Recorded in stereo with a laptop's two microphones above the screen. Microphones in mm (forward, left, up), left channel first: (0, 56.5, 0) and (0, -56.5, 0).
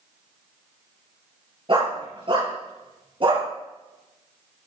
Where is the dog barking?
45° right (ahead or behind), 5.5 m.